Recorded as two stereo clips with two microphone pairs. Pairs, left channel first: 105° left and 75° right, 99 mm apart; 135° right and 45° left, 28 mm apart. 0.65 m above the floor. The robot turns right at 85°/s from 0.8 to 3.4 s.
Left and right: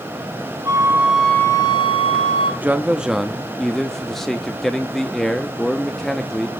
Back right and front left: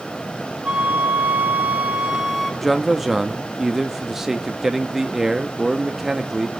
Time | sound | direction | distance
0.7 | a flute | 15° right | 1.4 m
2.6 | a man speaking | 40° right | 0.6 m